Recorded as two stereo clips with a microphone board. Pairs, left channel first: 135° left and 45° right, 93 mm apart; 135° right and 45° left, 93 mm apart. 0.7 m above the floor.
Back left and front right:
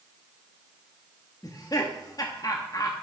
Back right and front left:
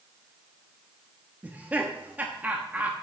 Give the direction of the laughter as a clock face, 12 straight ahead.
8 o'clock.